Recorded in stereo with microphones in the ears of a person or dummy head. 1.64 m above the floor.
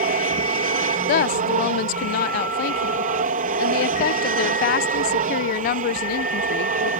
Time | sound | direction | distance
0.0 | an aircraft | 35° right (ahead or behind) | ?
1.1 | a woman speaking | 40° left (ahead or behind) | ?